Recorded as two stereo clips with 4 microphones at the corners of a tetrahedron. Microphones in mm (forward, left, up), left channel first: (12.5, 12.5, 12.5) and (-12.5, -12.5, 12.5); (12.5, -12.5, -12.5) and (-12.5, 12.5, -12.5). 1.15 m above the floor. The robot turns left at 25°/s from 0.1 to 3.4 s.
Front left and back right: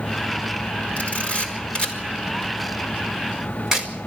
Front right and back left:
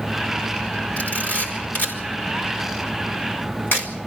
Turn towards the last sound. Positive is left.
turn(degrees=-60)